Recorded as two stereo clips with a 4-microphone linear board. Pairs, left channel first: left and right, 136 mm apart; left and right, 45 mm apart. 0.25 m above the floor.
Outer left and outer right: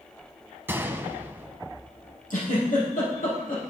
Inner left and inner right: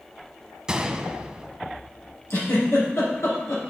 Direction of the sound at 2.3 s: 80° left.